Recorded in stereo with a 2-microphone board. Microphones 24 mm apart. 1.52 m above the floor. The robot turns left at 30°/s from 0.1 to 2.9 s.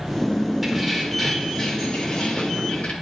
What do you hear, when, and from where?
0.6 s keys jangling: 175° right, 2 m; by 2.9 s 115° left, 2 m